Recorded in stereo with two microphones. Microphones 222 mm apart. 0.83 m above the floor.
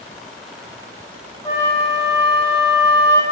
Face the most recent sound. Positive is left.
turn(degrees=10)  # may be behind; listen again after turning